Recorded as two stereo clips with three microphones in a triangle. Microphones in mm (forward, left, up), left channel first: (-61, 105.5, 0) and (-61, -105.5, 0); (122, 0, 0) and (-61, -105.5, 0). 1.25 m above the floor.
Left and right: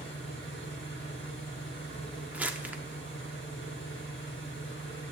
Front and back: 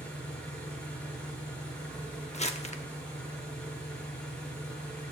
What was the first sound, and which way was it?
An engine running, 115° left.